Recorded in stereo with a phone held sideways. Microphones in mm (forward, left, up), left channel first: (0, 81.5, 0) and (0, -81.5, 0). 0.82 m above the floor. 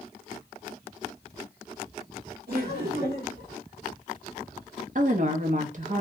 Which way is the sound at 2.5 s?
70° right (ahead or behind).